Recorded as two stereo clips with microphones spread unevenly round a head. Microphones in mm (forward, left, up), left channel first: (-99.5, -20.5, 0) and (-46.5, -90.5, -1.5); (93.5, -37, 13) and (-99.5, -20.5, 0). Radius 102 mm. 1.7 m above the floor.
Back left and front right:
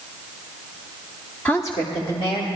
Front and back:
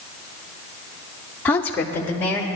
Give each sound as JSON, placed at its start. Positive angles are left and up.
{"t": 1.4, "sound": "a woman speaking", "azimuth_deg": 65, "distance_m": 0.5}